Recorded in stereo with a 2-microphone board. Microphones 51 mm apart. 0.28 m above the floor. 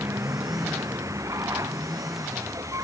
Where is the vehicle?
65° right (ahead or behind); by 2.9 s 85° right.